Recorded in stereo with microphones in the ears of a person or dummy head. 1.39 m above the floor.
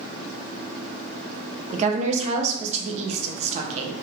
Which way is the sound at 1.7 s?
40° right (ahead or behind).